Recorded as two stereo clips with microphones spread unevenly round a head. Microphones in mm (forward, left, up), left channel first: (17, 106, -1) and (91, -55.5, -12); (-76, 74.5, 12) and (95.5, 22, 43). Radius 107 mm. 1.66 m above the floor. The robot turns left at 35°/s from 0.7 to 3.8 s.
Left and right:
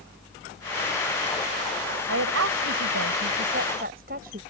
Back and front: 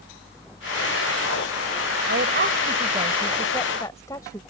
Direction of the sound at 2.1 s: 60° right.